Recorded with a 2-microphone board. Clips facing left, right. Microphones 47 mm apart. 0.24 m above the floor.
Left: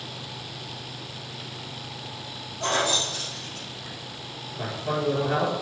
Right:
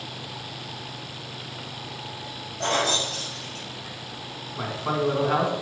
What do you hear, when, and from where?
2.6 s keys jangling: 75° right (ahead or behind), 3.5 m; by 4.0 s 60° right (ahead or behind), 3.5 m
4.6 s a man speaking: 55° right (ahead or behind), 2.5 m